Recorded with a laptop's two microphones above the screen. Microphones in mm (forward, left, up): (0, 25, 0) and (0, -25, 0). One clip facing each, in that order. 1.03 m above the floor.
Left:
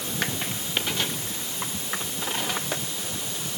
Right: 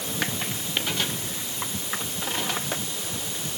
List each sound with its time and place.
Only background noise.